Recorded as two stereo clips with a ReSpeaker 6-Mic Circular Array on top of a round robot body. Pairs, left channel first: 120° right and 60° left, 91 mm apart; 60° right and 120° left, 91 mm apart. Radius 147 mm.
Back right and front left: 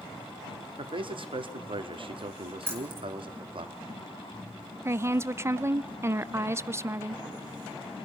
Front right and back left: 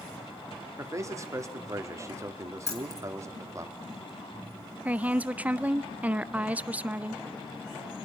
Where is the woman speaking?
65° left, 0.7 m.